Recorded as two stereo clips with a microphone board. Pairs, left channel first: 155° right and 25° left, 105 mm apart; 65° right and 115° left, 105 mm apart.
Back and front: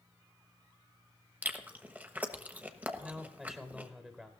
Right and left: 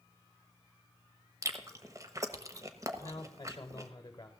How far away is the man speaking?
About 1.0 m.